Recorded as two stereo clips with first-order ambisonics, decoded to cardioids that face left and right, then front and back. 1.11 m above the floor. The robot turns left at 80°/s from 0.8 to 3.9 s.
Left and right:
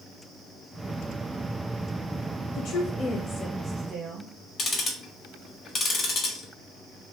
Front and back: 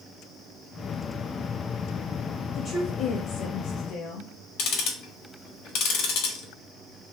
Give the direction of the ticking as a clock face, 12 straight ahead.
11 o'clock.